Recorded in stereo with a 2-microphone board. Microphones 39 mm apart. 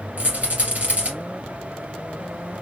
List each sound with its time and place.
0.2 s a rattle: 45° right (ahead or behind), 2.5 m